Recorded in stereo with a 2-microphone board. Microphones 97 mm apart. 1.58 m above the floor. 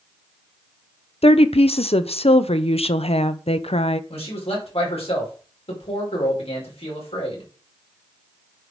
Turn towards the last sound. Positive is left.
turn(degrees=85)